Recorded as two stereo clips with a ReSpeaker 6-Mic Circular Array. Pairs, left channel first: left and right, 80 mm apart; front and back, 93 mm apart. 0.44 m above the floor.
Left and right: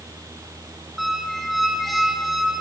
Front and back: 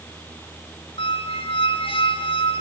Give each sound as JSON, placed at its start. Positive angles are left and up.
{"t": 1.0, "sound": "a squeak", "azimuth_deg": 0, "distance_m": 2.0}